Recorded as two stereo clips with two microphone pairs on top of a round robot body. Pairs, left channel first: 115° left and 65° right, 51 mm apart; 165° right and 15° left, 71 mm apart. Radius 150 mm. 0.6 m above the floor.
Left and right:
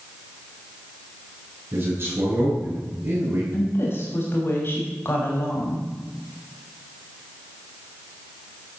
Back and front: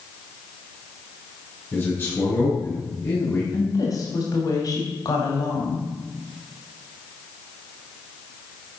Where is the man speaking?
105° right, 8.5 m; by 3.4 s 110° right, 9 m.